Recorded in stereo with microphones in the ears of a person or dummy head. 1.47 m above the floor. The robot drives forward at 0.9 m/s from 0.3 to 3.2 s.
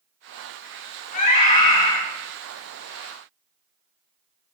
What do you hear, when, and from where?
1.1 s a scream: 40° left (ahead or behind), 4.5 m; by 2.0 s 35° left (ahead or behind), 5 m